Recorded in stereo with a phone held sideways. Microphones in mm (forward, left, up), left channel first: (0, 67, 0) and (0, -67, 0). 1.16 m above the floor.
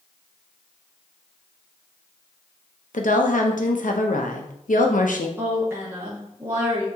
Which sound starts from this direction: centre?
A woman speaking, at 5.4 s.